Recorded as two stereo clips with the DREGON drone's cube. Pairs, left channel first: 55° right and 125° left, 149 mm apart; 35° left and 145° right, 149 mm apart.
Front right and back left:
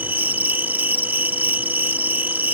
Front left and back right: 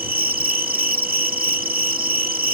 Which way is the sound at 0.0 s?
160° right.